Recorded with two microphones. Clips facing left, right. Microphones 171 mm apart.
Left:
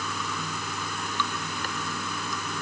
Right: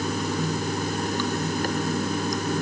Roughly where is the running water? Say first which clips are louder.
Right 9 dB; right.